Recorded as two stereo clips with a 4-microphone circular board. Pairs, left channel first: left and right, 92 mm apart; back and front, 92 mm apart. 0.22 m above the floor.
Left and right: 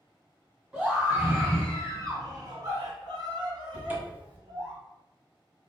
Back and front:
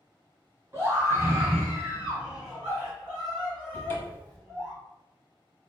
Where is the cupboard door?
140° right, 0.9 m.